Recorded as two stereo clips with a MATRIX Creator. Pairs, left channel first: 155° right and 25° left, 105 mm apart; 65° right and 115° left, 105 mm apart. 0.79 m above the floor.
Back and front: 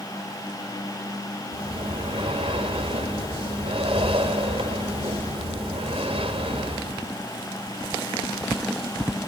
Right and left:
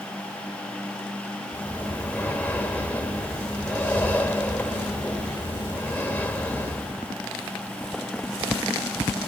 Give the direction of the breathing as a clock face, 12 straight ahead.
12 o'clock.